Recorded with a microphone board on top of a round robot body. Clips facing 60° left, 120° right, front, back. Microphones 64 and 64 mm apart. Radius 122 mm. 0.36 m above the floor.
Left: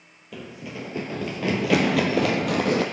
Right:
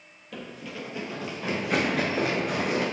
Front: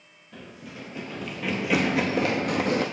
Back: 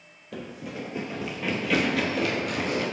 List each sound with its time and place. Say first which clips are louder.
0.3 s running footsteps: left 2 dB, back 6 dB; 145° left, 0.8 m; by 2.8 s 45° left, 1.2 m